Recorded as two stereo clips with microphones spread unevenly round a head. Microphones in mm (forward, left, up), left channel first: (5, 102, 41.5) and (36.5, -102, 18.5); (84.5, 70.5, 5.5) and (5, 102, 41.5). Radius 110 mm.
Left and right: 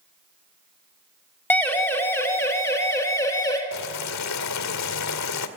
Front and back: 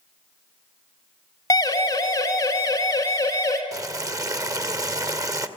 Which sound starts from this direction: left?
Boiling, at 3.7 s.